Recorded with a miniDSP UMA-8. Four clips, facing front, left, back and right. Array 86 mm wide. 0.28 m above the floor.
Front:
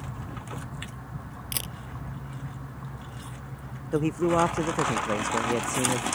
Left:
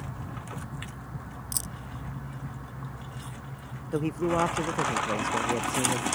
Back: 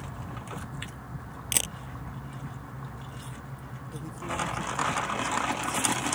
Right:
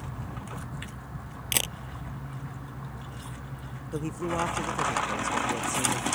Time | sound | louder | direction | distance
1.5 | a camera shutter | right 7 dB, back 4 dB | 110° right | ?
3.9 | a man speaking | left 4 dB, front 12 dB | 20° left | ?